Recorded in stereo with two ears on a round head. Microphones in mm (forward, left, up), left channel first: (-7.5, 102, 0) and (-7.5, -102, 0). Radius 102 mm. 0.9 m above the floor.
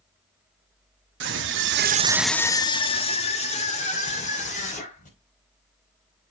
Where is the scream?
55° right (ahead or behind), 1.3 m; by 5.1 s 35° left (ahead or behind), 5 m.